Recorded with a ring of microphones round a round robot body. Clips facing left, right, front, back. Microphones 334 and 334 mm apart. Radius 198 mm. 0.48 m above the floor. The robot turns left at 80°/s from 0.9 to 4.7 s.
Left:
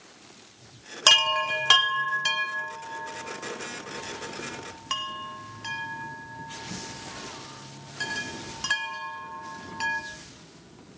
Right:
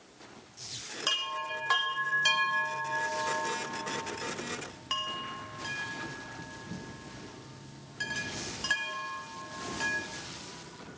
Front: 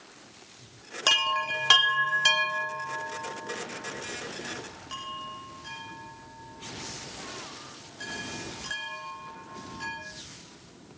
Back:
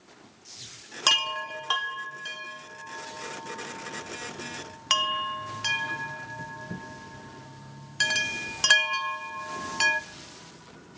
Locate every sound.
1.1 s a chime: 100° left, 0.7 m; by 10.0 s 170° left, 0.7 m